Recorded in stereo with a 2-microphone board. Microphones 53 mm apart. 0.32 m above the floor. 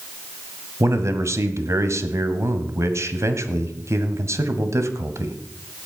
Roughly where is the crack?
I don't hear a crack.